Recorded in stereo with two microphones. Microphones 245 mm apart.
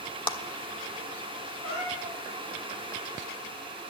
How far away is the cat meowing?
About 6.5 m.